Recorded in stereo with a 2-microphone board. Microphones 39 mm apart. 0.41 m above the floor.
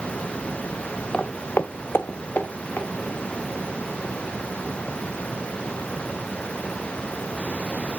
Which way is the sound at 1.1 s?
20° left (ahead or behind).